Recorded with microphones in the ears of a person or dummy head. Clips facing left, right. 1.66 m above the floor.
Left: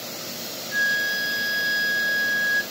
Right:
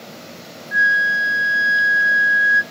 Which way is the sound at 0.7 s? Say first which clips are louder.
Right 8 dB; 25° right (ahead or behind).